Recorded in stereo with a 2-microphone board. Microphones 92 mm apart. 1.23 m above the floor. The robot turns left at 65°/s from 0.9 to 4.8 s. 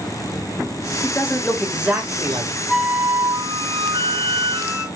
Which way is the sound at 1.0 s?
40° left.